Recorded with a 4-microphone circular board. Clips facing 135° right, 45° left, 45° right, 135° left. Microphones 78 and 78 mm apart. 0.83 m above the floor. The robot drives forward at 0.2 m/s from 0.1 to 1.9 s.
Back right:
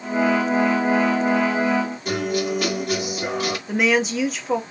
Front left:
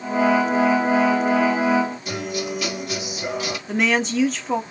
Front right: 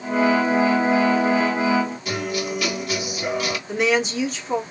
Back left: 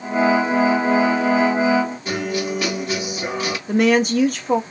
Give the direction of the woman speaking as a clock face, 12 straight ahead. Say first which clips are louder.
Back right 1 dB, back left 6 dB; 7 o'clock.